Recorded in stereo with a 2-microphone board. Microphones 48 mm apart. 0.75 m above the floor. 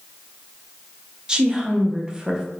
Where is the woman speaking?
20° right (ahead or behind), 0.6 m.